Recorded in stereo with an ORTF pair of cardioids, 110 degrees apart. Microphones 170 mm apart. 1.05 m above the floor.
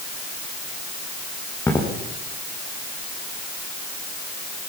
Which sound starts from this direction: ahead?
Footsteps, at 1.7 s.